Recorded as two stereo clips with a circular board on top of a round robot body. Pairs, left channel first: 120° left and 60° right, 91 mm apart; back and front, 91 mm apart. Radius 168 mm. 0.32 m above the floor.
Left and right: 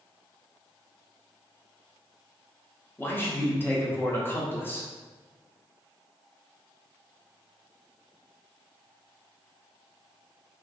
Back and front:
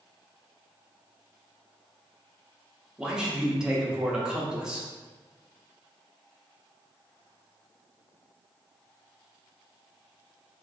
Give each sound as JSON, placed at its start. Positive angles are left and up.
{"t": 3.0, "sound": "a man speaking", "azimuth_deg": 75, "distance_m": 0.9}